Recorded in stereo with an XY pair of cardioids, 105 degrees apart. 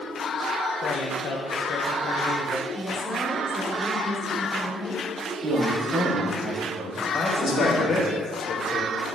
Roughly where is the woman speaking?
Ahead.